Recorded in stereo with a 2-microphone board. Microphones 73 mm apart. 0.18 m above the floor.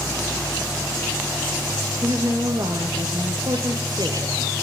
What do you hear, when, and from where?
2.0 s a woman speaking: 60° right (ahead or behind), 4.5 m